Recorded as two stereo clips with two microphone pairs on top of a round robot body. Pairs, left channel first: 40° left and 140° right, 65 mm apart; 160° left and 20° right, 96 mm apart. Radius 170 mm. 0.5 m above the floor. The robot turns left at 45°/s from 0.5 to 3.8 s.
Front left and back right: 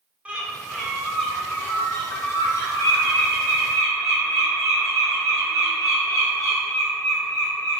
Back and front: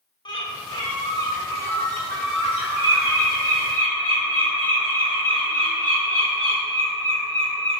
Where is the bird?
150° left, 2.5 m; by 7.8 s 5° left, 2.5 m.